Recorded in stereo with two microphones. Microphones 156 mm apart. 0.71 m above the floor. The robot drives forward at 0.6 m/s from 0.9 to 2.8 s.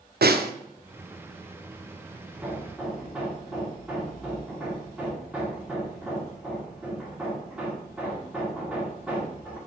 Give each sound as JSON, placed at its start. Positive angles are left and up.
{"t": 0.2, "sound": "a snare drum", "side_deg": -85, "distance_m": 0.5}
{"t": 2.3, "sound": "hammering", "side_deg": -10, "distance_m": 1.3}